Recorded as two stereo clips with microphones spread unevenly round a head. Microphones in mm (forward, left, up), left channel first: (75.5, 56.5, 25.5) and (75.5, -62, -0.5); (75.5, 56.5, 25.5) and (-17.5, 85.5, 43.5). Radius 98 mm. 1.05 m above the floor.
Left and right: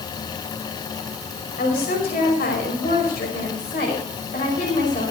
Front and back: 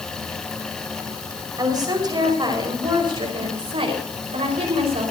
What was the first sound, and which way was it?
A woman speaking, 115° left.